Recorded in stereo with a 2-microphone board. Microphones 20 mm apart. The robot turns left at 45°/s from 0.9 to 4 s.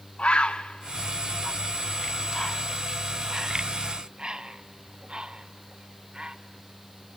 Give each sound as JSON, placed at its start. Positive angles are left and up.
{"t": 0.2, "sound": "a bird", "side_deg": 70, "distance_m": 0.7}